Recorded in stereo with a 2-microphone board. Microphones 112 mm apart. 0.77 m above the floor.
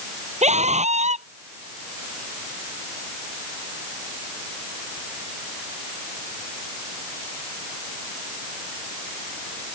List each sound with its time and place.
0.4 s a scream: 90° right